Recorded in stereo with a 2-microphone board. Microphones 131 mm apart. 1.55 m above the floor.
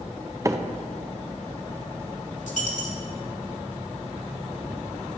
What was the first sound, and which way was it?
A microwave, 25° right (ahead or behind).